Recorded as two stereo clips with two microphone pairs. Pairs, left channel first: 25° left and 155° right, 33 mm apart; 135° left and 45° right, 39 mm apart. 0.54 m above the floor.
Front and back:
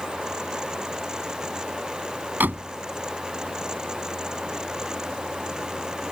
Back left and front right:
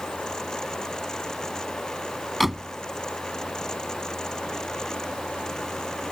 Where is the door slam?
135° right.